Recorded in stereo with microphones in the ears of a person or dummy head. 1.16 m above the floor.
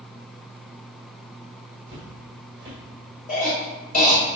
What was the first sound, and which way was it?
Footsteps, 15° right (ahead or behind).